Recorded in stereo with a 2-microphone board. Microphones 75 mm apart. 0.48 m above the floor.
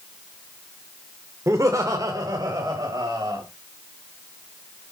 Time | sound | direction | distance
1.5 | laughter | 40° right (ahead or behind) | 1.4 m